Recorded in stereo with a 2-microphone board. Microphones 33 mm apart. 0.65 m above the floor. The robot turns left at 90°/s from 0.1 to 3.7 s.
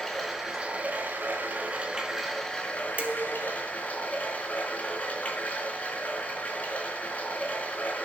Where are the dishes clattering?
60° right, 1.0 m; by 3.6 s 110° right, 1.0 m.